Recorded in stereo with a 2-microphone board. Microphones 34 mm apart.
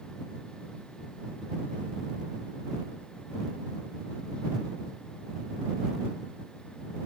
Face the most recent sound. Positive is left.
No sound to turn to.